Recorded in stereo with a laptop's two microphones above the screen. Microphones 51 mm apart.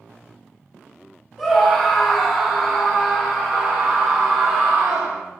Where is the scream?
5° right (ahead or behind), 1.7 m; by 5.2 s 75° right (ahead or behind), 1.0 m.